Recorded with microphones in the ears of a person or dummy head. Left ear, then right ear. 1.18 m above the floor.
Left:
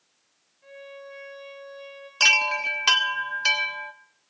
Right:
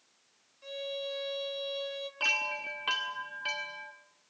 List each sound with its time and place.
0.6 s a violin: 75° right (ahead or behind), 4 m
2.2 s a chime: 65° left (ahead or behind), 1.2 m